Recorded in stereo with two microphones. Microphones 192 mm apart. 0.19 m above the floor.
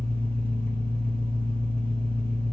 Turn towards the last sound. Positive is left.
turn(degrees=50)  # may be behind; listen again after turning